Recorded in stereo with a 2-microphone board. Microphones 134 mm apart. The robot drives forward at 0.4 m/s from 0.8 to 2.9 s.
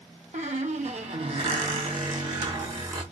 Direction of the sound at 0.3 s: 65° right (ahead or behind).